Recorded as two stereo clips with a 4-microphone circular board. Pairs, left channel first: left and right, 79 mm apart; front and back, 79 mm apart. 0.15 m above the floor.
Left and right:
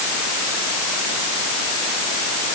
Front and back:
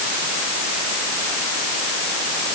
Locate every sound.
Only background noise.